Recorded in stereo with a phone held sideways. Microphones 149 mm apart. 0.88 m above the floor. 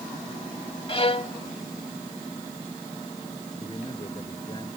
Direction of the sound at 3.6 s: 30° left (ahead or behind).